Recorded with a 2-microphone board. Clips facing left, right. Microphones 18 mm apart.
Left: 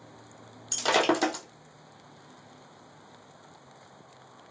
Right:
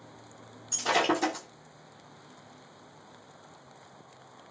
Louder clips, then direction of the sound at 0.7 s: Left 2 dB; 60° left (ahead or behind).